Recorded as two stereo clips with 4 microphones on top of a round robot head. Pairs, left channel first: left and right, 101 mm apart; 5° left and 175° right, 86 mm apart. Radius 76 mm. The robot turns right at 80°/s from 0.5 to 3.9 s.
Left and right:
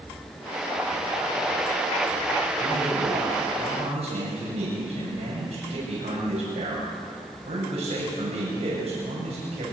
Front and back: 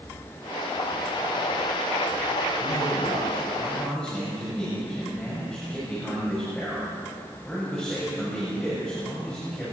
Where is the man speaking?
175° left, 7 m; by 9.7 s 80° right, 7 m.